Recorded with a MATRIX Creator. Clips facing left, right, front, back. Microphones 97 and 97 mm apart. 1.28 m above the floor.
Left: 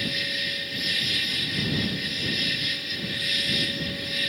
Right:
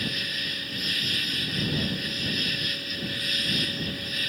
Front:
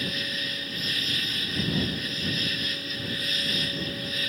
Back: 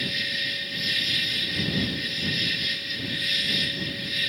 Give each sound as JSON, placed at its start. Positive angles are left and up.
{"t": 0.0, "sound": "an insect", "azimuth_deg": -45}